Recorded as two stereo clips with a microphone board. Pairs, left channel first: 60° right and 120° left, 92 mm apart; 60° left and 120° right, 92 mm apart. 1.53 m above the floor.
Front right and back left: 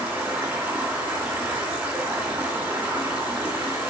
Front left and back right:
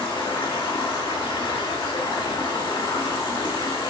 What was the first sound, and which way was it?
Running water, 55° left.